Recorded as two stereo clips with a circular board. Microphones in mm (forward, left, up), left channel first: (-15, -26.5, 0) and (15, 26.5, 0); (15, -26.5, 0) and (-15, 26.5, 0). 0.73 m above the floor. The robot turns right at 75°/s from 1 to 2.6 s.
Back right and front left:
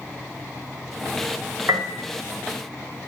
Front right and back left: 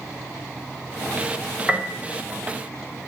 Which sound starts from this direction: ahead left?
A piano, at 1.7 s.